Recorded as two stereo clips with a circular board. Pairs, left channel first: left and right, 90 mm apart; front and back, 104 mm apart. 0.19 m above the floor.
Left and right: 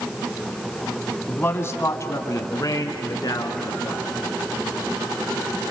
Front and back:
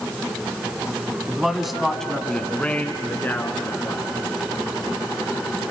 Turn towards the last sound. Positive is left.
turn(degrees=65)